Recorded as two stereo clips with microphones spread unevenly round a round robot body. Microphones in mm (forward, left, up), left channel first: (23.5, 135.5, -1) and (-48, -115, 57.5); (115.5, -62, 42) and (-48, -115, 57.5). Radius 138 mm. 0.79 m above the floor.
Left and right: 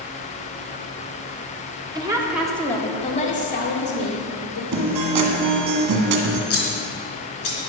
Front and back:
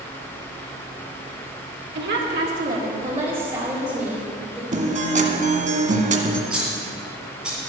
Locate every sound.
1.9 s a woman speaking: 175° left, 2.0 m; by 4.6 s 105° left, 3 m
4.7 s a guitar: 125° right, 1.8 m
6.5 s scissors: 110° left, 3.5 m